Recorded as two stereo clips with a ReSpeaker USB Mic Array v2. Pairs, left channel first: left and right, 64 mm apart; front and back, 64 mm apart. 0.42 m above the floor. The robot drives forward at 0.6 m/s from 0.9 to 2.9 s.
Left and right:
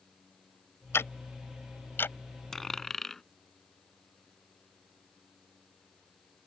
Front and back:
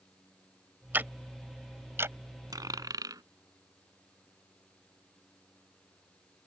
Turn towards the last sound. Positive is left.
turn(degrees=175)